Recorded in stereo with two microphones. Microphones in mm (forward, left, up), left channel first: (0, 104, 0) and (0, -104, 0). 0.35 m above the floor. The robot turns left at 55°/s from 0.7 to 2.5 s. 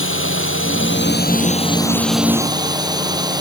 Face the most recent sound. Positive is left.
turn(degrees=-20)